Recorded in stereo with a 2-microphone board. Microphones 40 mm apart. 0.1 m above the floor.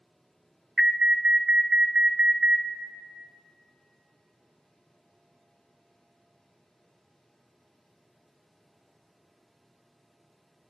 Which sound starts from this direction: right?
An alarm, at 0.8 s.